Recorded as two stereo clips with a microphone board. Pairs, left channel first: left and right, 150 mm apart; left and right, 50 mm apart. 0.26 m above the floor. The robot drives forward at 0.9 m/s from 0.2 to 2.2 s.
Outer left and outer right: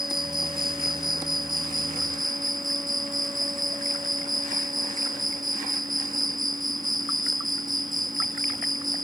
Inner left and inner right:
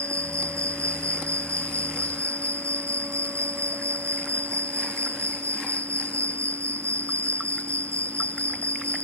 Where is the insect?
75° right (ahead or behind); by 9.0 s 65° right (ahead or behind).